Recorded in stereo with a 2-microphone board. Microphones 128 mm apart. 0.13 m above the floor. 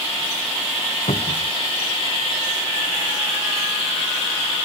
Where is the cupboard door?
65° left (ahead or behind).